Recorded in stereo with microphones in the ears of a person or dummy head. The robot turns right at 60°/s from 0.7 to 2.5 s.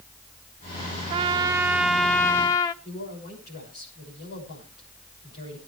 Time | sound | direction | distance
1.1 | a trumpet | 50° right | 0.6 m
2.8 | a man speaking | 45° left (ahead or behind) | 6.5 m